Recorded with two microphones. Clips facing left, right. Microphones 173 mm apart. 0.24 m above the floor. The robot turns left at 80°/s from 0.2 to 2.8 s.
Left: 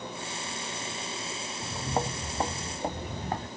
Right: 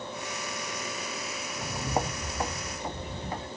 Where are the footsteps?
30° right (ahead or behind), 0.5 m; by 3.5 s 50° left (ahead or behind), 1.8 m.